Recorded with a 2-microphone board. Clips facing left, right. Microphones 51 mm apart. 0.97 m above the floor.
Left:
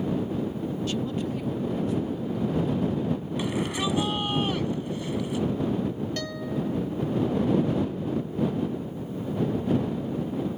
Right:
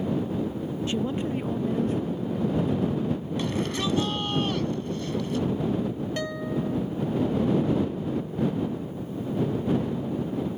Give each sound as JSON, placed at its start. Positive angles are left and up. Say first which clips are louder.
{"t": 0.9, "sound": "a woman speaking", "louder": "right 4 dB", "side_deg": -25}
{"t": 3.4, "sound": "a shout", "louder": "even", "side_deg": 10}
{"t": 6.2, "sound": "a guitar", "louder": "right 1 dB", "side_deg": -15}